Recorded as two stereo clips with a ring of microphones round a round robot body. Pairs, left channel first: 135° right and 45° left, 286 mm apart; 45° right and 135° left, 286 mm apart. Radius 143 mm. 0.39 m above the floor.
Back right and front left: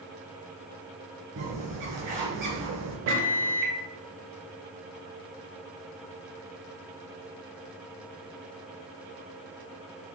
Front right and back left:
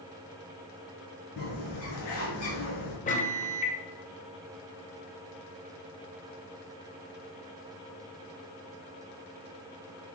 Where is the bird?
5° right, 3.5 m.